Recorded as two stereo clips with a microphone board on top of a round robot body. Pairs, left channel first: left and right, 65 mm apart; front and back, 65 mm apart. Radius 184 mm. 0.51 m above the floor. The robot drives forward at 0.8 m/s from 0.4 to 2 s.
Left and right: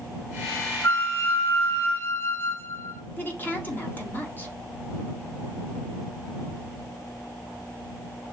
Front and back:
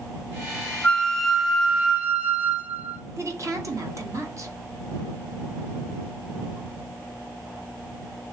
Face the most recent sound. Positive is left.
turn(degrees=150)